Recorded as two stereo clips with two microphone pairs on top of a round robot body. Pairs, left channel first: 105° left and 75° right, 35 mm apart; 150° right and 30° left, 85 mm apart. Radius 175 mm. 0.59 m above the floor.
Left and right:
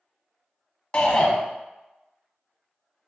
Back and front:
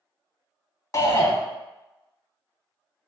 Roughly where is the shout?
Behind.